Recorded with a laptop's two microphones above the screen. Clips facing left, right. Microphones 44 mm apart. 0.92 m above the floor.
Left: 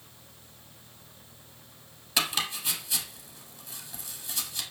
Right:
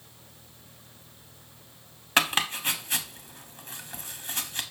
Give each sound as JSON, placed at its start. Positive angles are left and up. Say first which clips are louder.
{"t": 2.2, "sound": "chopping", "louder": "right 5 dB", "side_deg": -45, "distance_m": 1.0}